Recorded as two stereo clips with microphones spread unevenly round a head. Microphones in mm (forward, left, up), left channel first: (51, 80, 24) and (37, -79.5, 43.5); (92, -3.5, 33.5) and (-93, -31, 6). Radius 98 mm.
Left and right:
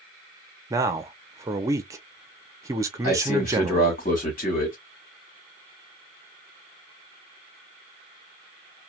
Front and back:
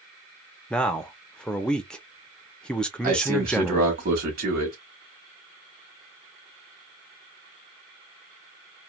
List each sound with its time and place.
0.7 s a man speaking: 55° right, 0.5 m
3.0 s a man speaking: 140° left, 1.2 m